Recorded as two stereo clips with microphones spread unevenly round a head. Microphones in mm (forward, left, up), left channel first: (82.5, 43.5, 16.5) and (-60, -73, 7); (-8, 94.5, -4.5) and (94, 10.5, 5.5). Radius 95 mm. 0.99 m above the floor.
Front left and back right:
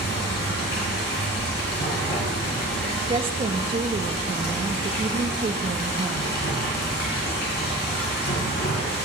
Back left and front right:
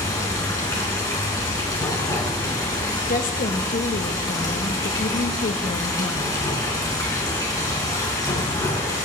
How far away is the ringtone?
No ringtone in this recording.